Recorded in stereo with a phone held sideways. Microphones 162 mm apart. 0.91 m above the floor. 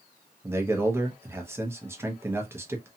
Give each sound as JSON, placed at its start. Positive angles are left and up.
{"t": 0.4, "sound": "a man speaking", "side_deg": -15, "distance_m": 0.7}